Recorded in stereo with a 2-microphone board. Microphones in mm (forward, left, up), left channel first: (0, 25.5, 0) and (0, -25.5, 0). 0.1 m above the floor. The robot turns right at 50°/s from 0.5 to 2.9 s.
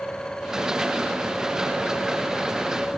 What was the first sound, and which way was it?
Only background noise.